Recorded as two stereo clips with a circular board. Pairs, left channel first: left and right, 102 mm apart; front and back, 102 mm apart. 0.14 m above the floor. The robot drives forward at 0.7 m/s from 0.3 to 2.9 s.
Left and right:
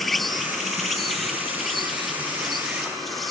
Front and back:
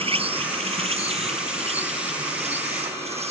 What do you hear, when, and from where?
0.0 s an insect: straight behind